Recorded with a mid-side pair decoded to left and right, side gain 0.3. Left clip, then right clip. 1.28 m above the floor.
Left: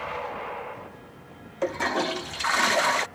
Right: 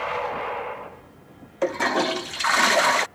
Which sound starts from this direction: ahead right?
A toilet flushing, at 1.6 s.